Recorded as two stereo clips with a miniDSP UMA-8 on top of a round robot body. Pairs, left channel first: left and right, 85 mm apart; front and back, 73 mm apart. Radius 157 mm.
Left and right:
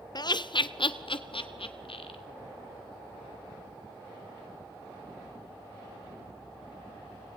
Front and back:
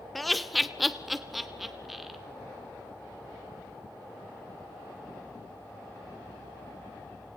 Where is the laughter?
90° left, 0.8 m; by 2.2 s 95° left, 2.5 m.